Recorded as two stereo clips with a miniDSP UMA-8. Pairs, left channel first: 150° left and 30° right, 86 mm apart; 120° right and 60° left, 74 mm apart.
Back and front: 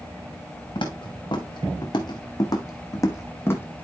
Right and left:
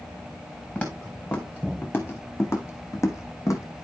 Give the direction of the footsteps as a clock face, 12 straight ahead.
6 o'clock.